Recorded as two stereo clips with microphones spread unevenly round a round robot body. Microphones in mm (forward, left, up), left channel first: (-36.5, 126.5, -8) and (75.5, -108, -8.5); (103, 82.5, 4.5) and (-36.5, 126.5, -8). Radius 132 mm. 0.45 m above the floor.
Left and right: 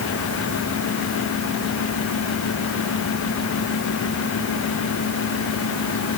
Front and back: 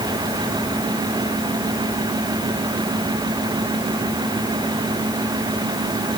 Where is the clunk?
No clunk in this recording.